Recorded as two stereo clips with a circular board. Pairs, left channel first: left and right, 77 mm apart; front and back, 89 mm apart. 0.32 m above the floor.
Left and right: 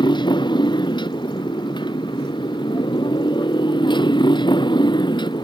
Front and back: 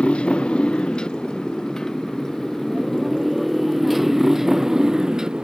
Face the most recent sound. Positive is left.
turn(degrees=100)